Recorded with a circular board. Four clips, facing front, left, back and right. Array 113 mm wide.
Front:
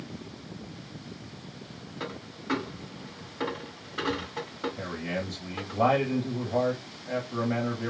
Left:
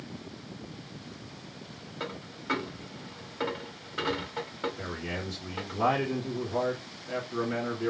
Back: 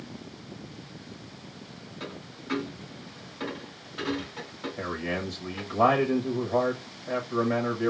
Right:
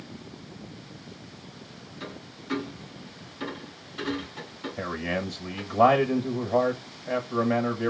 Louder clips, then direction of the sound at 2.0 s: Left 3 dB, front 3 dB; 60° left.